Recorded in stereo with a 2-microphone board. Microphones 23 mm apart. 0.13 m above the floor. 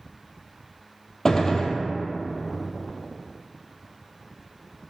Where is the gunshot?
30° left (ahead or behind), 0.6 m.